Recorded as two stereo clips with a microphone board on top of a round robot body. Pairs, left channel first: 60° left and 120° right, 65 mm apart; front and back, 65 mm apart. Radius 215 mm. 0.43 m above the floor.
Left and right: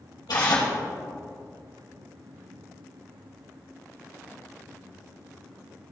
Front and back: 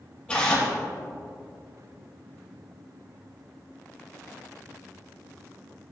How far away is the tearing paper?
About 3 m.